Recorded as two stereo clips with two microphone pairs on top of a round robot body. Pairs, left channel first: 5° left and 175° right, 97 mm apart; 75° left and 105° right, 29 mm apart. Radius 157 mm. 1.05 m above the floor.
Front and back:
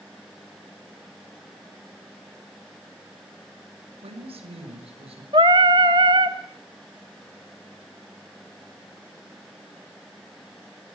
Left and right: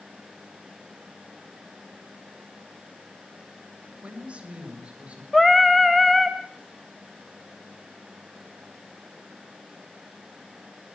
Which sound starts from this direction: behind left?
Singing, at 5.3 s.